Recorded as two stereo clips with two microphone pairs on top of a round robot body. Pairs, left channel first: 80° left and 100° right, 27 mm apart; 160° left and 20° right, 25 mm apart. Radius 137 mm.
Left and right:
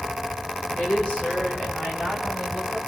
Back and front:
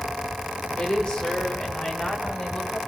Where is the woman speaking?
125° left, 6.5 m; by 2.8 s 130° left, 9 m.